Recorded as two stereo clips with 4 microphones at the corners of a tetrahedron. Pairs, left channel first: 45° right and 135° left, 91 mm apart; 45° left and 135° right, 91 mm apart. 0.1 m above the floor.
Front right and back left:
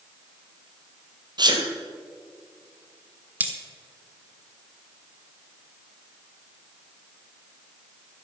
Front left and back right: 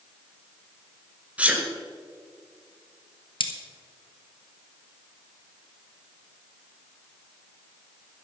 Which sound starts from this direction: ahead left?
Cutlery clinking, at 3.4 s.